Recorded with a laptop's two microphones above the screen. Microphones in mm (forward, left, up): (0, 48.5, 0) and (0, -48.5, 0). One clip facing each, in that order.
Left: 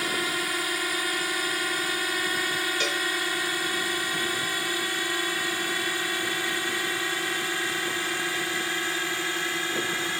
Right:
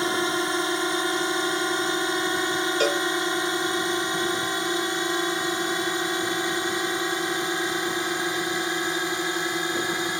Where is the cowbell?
45° right (ahead or behind).